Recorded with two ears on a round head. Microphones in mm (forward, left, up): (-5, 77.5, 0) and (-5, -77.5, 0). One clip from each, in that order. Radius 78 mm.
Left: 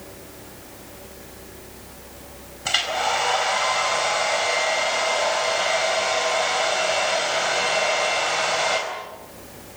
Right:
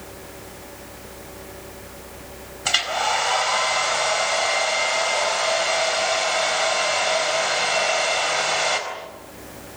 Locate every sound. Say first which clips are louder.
2.6 s a hair dryer: right 1 dB; 20° right (ahead or behind), 4 m